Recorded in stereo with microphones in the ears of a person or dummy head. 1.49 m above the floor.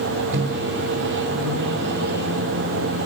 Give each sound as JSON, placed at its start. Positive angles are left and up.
{"t": 0.3, "sound": "a microwave", "side_deg": -60, "distance_m": 2.0}